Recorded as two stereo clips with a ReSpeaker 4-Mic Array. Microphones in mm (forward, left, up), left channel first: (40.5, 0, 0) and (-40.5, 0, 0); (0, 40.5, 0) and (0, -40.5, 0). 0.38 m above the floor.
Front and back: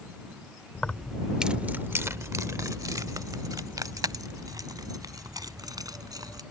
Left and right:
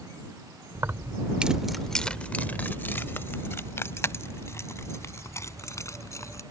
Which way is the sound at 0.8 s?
60° right.